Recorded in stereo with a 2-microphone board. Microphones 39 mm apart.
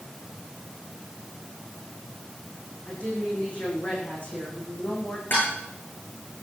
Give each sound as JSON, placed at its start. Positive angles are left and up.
{"t": 2.9, "sound": "a woman speaking", "side_deg": 35, "distance_m": 10.0}
{"t": 5.3, "sound": "dishes clattering", "side_deg": 60, "distance_m": 8.5}